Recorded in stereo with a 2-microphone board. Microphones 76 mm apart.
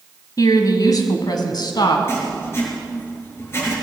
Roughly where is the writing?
Left.